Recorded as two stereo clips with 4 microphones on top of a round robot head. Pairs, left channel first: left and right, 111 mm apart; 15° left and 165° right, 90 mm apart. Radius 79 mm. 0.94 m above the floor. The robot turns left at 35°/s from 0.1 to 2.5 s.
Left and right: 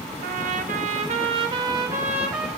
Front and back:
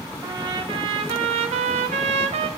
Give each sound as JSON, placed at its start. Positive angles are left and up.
{"t": 0.2, "sound": "a trumpet", "azimuth_deg": -100, "distance_m": 0.8}